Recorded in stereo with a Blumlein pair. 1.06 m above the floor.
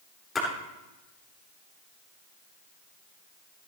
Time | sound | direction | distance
0.3 | a splash | 15° left | 3.5 m